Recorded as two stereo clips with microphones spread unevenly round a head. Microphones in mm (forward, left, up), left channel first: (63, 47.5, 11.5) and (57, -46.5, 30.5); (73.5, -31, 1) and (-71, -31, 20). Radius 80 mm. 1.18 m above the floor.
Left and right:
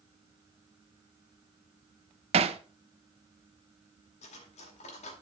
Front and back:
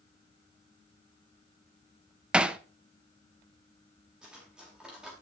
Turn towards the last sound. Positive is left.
turn(degrees=95)